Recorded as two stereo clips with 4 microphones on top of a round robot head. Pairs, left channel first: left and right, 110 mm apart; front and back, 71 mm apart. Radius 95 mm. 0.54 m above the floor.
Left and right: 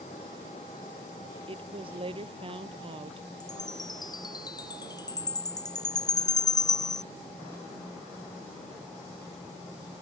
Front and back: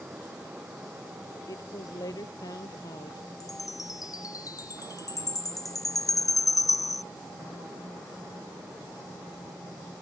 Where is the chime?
35° left.